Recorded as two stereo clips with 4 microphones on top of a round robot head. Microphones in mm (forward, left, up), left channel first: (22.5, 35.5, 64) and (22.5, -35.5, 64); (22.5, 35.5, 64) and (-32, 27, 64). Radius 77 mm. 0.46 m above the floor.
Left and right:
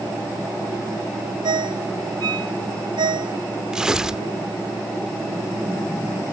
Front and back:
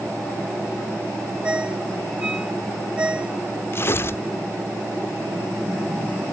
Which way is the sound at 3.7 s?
10° right.